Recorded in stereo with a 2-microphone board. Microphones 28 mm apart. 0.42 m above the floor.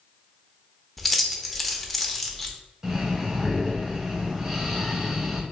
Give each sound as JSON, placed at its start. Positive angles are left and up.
{"t": 1.0, "sound": "keys jangling", "side_deg": 0, "distance_m": 0.5}
{"t": 2.8, "sound": "breathing", "side_deg": -20, "distance_m": 0.9}